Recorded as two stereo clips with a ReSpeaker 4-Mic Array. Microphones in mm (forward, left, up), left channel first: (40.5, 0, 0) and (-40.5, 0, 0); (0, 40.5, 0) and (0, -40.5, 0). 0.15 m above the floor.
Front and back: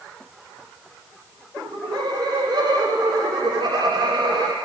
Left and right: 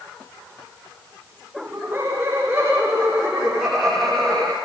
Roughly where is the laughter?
Behind right.